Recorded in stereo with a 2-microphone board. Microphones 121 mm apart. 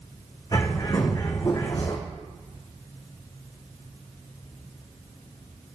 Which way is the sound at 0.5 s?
30° left (ahead or behind).